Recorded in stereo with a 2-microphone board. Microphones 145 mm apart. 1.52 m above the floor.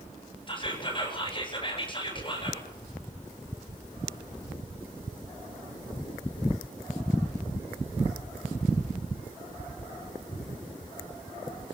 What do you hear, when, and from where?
0.5 s whispering: 35° left (ahead or behind), 6.5 m